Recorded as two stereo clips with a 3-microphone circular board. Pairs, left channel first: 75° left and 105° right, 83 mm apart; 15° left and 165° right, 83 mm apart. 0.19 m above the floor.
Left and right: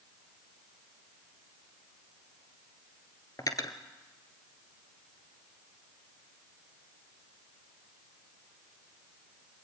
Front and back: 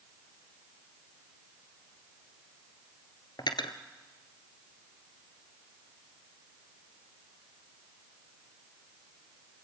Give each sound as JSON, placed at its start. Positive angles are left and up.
{"t": 3.4, "sound": "cutlery clinking", "azimuth_deg": 35, "distance_m": 1.9}